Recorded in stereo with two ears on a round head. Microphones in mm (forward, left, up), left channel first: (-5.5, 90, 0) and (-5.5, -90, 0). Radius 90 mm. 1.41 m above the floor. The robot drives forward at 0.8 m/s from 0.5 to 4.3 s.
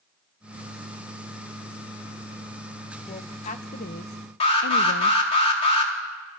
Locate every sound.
3.1 s a woman speaking: 30° left (ahead or behind), 1.6 m; by 5.2 s 60° left (ahead or behind), 0.9 m
4.4 s an alarm: 30° left (ahead or behind), 4 m